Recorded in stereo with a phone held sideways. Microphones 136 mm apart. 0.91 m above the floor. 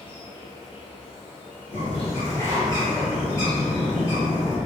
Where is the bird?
25° left (ahead or behind), 1.4 m.